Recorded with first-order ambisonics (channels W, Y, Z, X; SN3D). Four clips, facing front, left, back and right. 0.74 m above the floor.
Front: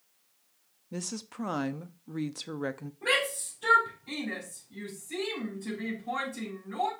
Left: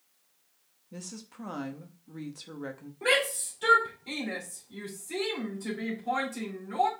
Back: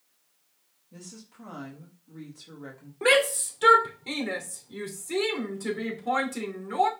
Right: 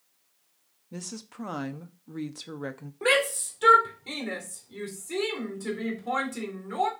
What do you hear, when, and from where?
0.9 s a woman speaking: 25° right, 0.6 m
3.0 s a shout: 165° right, 2.5 m